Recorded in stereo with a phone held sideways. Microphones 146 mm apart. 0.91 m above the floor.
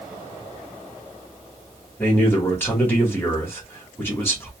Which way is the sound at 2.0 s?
15° left (ahead or behind).